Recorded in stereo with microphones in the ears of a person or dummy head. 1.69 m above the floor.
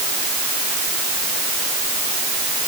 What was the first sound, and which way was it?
Only background noise.